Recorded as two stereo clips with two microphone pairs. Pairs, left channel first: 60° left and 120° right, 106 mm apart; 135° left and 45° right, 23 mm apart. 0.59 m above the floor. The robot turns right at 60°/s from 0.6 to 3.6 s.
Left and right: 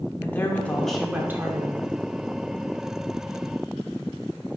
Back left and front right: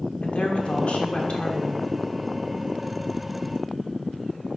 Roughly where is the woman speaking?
Behind left.